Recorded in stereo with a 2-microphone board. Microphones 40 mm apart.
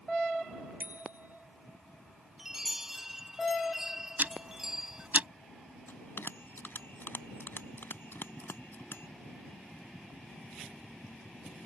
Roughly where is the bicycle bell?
Right.